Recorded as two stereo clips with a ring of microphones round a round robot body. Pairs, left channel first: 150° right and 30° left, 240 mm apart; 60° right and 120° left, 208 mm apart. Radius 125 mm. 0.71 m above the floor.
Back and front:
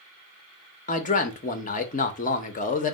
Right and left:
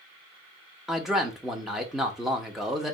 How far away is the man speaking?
About 0.6 m.